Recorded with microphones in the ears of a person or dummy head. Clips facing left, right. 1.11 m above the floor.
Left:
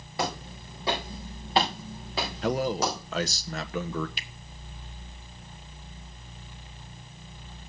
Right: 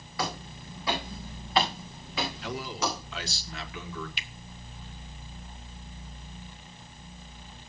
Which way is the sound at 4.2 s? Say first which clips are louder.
Even; 35° left (ahead or behind).